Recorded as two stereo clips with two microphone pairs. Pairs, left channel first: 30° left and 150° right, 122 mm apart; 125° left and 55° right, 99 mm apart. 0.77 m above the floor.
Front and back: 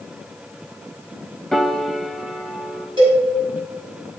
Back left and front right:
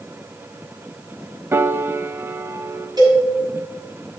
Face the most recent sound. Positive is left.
turn(degrees=-105)